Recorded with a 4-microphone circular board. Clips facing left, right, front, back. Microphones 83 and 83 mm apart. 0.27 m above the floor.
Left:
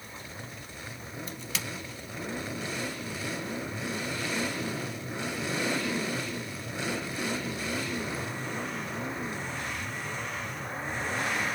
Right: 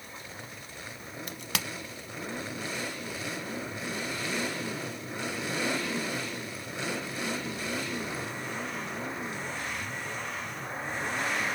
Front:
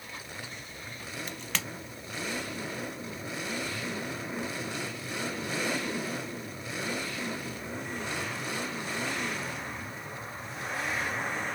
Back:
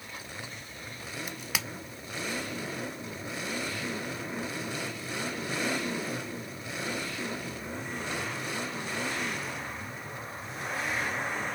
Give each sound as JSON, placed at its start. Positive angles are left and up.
{"t": 1.3, "sound": "a crack", "azimuth_deg": -100, "distance_m": 0.7}